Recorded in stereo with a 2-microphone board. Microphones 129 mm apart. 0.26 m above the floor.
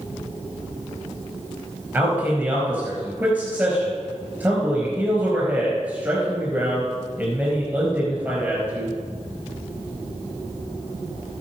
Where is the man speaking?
10° right (ahead or behind), 4 m.